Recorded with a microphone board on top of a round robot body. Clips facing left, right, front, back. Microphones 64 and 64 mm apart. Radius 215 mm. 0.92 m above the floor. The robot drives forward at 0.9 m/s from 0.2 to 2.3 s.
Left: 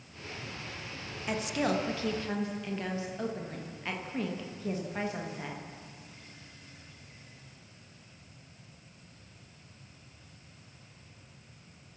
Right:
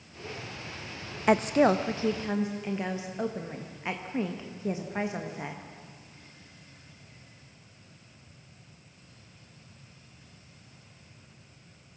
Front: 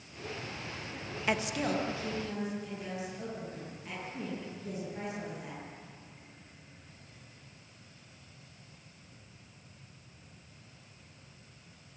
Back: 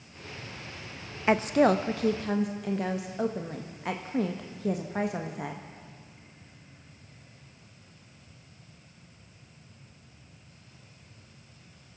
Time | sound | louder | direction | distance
1.3 | a woman speaking | right 9 dB, back 10 dB | 120° right | 0.6 m